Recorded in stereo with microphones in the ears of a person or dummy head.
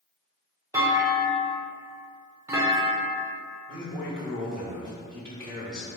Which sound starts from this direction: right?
A man speaking, at 3.7 s.